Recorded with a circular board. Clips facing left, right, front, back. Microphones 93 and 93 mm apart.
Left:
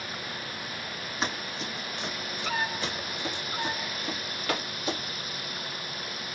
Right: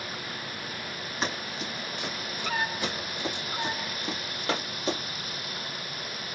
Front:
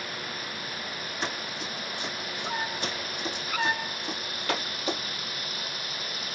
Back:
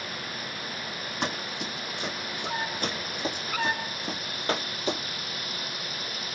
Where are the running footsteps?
Straight behind, 3 m; by 5.0 s 125° right, 2 m.